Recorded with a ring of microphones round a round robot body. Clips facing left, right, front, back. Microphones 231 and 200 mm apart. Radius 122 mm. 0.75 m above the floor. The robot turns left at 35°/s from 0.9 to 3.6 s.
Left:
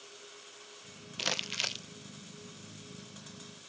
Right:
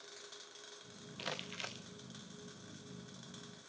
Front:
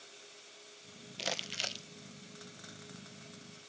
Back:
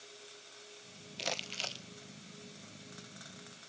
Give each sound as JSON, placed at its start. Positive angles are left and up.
{"t": 1.2, "sound": "crumpling", "azimuth_deg": 90, "distance_m": 0.5}